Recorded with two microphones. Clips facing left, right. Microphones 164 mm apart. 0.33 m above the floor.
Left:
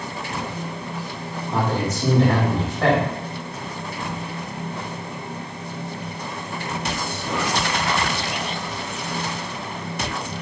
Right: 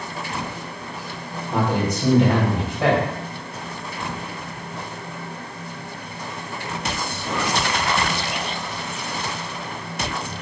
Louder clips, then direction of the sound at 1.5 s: Right 2 dB; 15° right (ahead or behind).